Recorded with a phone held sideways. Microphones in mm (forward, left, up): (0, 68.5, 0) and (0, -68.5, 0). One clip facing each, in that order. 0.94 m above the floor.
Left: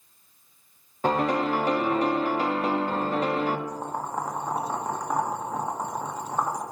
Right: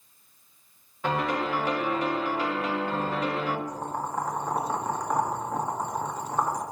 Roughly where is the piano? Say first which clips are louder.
Left 4 dB; left.